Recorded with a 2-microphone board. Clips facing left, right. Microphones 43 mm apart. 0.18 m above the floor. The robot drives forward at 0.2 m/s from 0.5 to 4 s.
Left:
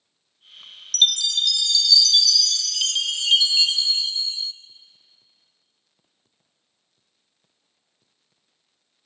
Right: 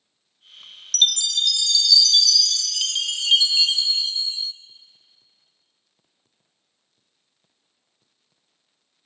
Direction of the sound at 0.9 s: 5° left (ahead or behind).